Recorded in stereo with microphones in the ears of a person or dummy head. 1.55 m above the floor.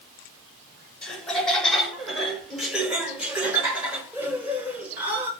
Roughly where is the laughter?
Centre.